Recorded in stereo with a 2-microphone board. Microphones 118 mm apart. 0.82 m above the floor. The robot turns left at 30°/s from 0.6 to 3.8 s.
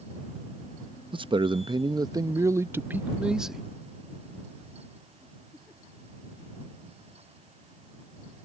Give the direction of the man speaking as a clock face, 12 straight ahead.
3 o'clock.